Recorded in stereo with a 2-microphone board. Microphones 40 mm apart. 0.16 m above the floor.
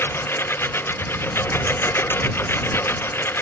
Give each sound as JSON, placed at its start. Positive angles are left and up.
{"t": 0.0, "sound": "a lawn mower", "side_deg": 80}